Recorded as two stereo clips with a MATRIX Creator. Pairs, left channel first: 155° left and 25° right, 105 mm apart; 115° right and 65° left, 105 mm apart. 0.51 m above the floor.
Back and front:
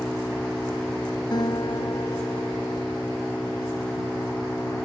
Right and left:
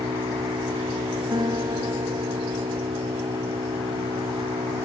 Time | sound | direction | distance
0.0 | an engine running | 80° left | ?
1.3 | a guitar | 110° left | ?